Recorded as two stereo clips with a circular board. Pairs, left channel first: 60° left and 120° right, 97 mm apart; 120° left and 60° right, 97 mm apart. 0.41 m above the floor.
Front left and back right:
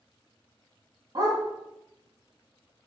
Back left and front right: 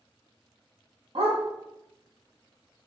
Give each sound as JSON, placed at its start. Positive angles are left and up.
{"t": 1.1, "sound": "a dog barking", "azimuth_deg": -80, "distance_m": 0.9}